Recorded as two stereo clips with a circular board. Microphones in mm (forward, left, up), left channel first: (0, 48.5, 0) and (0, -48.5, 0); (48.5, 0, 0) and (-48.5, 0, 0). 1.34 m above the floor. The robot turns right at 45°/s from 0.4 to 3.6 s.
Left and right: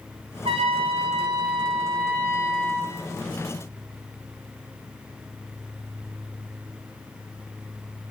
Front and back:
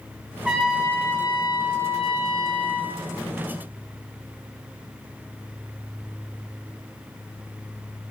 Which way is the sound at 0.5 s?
95° right.